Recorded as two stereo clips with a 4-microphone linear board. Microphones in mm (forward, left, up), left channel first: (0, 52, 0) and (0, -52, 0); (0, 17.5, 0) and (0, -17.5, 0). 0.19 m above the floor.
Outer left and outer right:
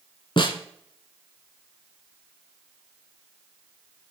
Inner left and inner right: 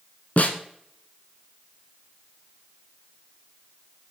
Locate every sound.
0.4 s a snare drum: 55° left (ahead or behind), 0.9 m